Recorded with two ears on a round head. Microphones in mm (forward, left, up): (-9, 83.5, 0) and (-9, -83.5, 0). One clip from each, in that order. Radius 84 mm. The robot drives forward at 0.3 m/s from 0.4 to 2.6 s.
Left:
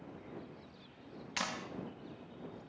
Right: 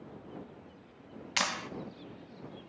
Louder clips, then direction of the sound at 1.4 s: Right 7 dB; 30° right (ahead or behind).